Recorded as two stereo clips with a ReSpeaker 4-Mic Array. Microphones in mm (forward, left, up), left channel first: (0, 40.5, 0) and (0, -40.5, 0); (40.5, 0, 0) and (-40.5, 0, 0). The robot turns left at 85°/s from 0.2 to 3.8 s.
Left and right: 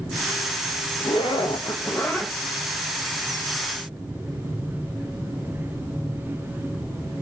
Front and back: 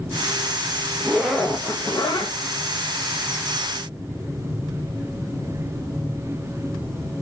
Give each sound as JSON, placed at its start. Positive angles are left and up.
{"t": 1.0, "sound": "a zipper", "azimuth_deg": 115, "distance_m": 1.2}